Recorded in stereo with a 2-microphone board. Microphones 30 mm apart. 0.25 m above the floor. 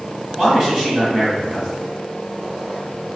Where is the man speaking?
20° right (ahead or behind), 1.1 m.